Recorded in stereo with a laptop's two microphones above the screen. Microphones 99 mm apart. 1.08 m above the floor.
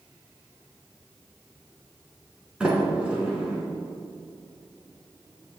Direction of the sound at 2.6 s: 10° right (ahead or behind).